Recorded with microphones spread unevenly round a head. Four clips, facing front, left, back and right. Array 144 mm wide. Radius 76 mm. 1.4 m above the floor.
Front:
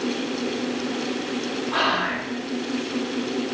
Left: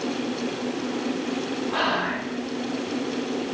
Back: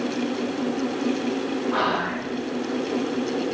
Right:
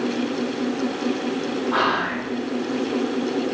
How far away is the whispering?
About 5 m.